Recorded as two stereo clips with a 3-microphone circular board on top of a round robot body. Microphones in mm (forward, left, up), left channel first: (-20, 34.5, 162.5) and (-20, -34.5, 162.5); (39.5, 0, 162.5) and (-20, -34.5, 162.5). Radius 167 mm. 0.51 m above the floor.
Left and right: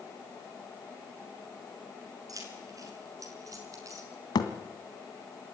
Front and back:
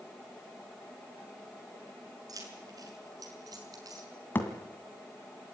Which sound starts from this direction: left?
A thud, at 4.3 s.